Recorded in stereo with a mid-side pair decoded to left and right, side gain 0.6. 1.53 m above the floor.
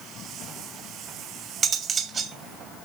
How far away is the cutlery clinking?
About 3 m.